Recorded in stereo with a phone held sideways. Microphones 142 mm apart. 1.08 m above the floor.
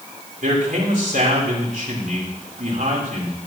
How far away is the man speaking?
About 3.5 m.